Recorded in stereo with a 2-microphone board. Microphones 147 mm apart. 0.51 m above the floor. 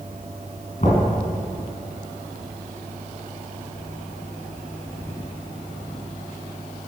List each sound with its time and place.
0.8 s knocking: 50° left (ahead or behind), 4.5 m